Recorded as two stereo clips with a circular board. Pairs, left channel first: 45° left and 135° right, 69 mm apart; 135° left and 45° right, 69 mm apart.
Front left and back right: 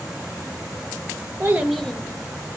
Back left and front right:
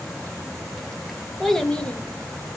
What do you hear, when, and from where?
1.4 s a child speaking: 140° right, 0.6 m; by 2.6 s 70° left, 1.1 m